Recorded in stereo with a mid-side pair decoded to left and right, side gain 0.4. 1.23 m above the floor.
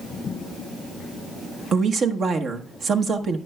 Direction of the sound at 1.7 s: 60° right.